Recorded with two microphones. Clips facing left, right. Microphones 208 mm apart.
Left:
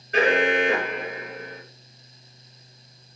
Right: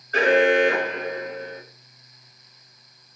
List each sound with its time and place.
0.1 s an alarm: 15° left (ahead or behind), 3 m